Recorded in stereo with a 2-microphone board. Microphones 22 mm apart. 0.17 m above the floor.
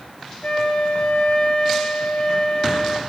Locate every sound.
0.4 s a flute: 50° left (ahead or behind), 1.4 m